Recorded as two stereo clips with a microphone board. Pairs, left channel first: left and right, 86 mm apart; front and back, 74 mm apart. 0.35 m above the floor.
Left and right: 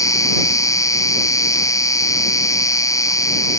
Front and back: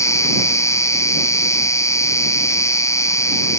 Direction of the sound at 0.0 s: 45° left.